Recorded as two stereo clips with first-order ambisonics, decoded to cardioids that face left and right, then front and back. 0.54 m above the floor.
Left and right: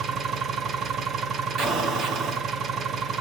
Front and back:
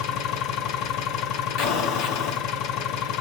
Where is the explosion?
25° right, 1.8 m.